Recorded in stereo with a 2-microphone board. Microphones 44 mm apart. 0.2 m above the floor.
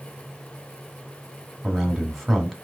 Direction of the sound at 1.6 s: Centre (ahead or behind).